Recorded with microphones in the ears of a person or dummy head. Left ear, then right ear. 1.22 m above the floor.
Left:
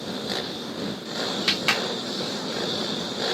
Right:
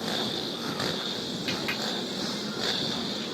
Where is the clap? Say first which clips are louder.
Left 8 dB; 55° left (ahead or behind).